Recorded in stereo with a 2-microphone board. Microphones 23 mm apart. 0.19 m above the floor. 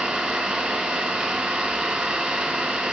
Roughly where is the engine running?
Right.